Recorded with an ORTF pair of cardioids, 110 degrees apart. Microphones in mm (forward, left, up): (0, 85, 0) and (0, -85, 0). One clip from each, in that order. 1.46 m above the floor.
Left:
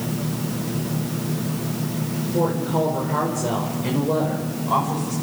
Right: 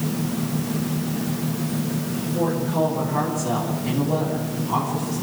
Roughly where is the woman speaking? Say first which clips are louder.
Left 1 dB; ahead left.